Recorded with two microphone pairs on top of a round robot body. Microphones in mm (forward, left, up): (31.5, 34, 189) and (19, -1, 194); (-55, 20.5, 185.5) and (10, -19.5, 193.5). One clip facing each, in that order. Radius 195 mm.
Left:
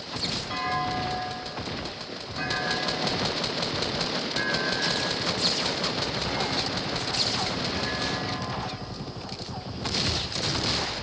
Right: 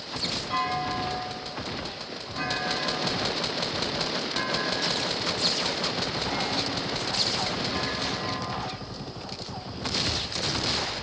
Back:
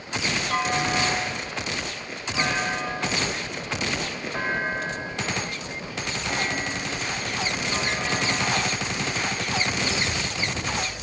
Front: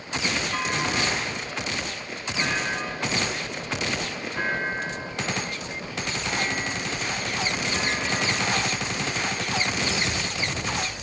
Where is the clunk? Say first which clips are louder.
Even, back 6 dB; 155° left, 8.5 m.